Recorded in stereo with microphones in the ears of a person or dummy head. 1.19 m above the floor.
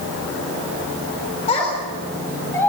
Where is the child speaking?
35° left (ahead or behind), 3.5 m; by 2.7 s 15° left (ahead or behind), 3.5 m.